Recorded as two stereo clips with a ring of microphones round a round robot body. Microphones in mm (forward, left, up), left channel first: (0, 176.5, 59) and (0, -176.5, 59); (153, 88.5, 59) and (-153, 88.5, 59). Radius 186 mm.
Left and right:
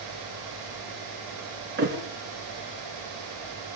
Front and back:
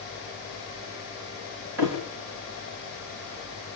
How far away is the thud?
About 4.5 m.